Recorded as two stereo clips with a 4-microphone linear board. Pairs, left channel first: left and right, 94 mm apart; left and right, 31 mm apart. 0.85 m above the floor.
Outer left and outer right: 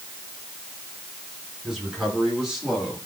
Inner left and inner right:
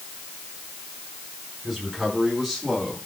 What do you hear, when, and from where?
1.6 s a man speaking: 5° right (ahead or behind), 8.5 m; by 3.0 s 10° right (ahead or behind), 7.5 m